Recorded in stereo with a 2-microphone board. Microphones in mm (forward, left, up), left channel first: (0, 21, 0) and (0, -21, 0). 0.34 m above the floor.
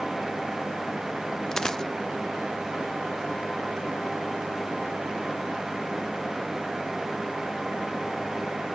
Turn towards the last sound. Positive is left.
turn(degrees=15)  # may be behind; listen again after turning